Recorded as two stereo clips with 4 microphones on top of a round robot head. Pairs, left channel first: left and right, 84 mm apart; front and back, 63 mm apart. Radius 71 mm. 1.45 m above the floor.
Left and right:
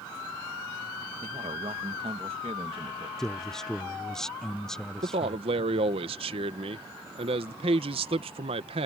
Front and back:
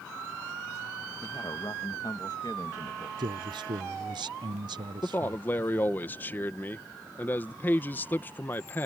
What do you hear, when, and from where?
1.2 s a man speaking: 55° right
3.2 s a man speaking: 175° left
5.0 s a man speaking: 70° right